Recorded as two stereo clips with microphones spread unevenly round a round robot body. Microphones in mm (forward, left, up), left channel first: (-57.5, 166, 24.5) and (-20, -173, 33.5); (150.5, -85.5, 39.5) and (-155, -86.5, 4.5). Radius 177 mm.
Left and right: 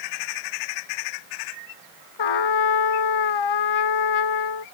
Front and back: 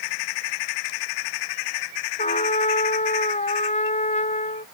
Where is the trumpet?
75° left.